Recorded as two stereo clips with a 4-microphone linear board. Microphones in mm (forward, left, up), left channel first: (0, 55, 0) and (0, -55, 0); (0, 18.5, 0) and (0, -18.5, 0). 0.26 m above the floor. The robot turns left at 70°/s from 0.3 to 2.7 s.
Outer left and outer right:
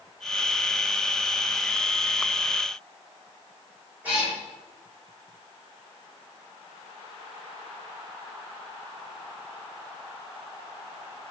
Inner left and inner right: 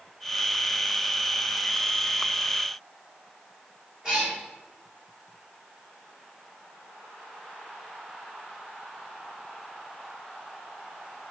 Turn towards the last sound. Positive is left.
turn(degrees=-15)  # may be behind; listen again after turning